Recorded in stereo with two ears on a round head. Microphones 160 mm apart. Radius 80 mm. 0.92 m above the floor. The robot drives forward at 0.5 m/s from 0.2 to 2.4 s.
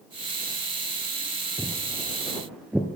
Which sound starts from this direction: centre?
Footsteps, at 1.6 s.